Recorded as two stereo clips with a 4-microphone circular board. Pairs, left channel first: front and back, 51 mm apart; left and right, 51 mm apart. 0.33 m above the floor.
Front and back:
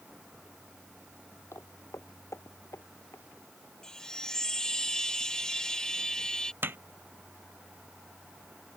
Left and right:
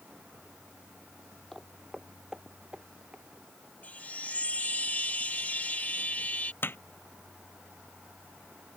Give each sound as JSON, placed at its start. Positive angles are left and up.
{"t": 1.5, "sound": "footsteps", "azimuth_deg": 0}
{"t": 3.8, "sound": "a chime", "azimuth_deg": 65}
{"t": 6.6, "sound": "hammering", "azimuth_deg": 135}